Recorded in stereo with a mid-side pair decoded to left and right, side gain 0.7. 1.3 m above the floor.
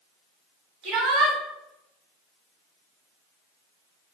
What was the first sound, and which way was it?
A shout, 65° right.